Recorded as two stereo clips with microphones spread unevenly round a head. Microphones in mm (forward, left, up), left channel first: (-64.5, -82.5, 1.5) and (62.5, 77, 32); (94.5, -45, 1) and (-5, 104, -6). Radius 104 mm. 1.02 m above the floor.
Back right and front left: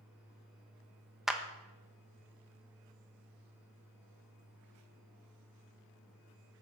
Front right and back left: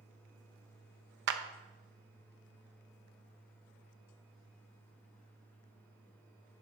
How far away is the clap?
About 0.9 m.